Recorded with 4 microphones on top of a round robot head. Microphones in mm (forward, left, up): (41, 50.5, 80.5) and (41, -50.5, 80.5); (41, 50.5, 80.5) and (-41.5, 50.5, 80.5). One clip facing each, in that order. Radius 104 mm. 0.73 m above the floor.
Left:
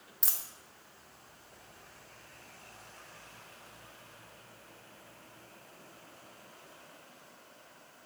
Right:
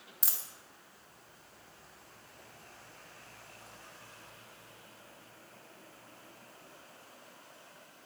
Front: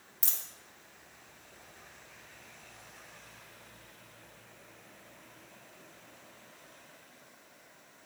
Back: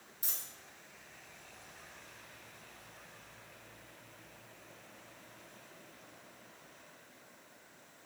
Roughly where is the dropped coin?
Ahead.